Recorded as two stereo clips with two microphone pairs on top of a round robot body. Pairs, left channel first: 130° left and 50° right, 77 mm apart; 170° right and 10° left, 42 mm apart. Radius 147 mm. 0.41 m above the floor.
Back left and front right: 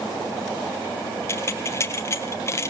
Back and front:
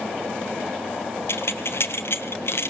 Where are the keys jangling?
175° right, 2.5 m.